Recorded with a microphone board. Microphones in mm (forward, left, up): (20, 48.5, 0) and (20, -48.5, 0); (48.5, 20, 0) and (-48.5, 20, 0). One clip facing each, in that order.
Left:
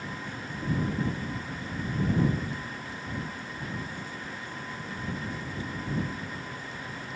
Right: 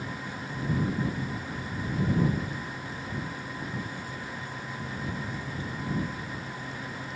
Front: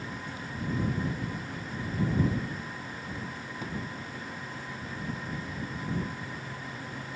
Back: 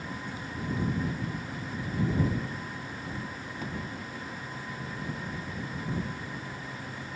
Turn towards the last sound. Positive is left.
No sound to turn to.